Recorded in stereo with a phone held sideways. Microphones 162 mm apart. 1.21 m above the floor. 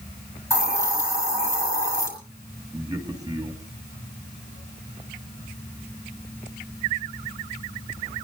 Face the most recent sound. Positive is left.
turn(degrees=-25)  # may be behind; listen again after turning